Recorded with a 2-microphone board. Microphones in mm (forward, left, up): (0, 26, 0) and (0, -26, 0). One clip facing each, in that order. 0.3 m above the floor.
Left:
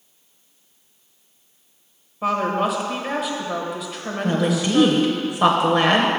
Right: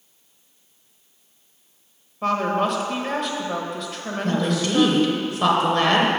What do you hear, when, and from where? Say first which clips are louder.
2.2 s a woman speaking: even; 5° left (ahead or behind), 0.9 m
4.2 s a woman speaking: left 2 dB; 20° left (ahead or behind), 0.8 m